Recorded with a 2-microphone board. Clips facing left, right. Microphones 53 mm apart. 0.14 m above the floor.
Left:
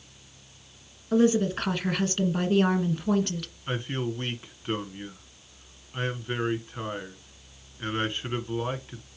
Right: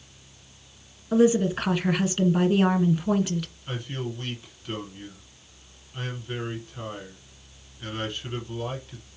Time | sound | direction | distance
1.1 | a woman speaking | 5° right (ahead or behind) | 1.6 m
3.7 | a man speaking | 35° left (ahead or behind) | 1.4 m